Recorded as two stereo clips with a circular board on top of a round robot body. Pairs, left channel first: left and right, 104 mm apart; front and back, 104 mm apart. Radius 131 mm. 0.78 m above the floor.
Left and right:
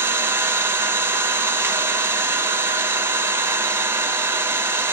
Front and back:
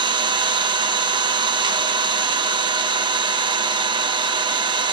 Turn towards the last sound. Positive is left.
turn(degrees=-150)